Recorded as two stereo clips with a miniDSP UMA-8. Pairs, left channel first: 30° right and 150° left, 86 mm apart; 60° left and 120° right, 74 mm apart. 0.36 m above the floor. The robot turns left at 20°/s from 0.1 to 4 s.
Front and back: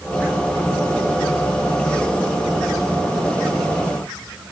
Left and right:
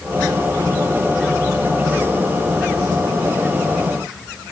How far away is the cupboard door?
No cupboard door in this recording.